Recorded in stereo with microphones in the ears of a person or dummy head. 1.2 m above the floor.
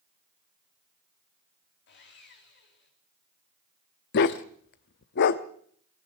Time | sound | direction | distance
1.9 | sawing | 55° left (ahead or behind) | 3.5 m
4.1 | a dog barking | 45° left (ahead or behind) | 0.9 m